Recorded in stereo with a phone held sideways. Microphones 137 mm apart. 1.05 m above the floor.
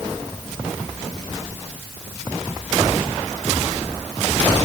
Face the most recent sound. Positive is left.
No sound to turn to.